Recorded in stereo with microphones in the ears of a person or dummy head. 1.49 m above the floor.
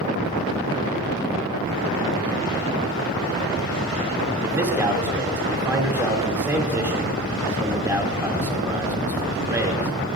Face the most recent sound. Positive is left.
turn(degrees=-15)  # may be behind; listen again after turning